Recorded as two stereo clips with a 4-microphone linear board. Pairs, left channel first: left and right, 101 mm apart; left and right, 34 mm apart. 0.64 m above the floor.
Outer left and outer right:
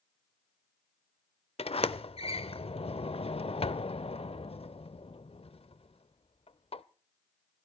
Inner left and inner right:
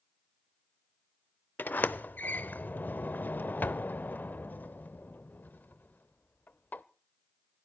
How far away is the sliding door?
About 0.6 m.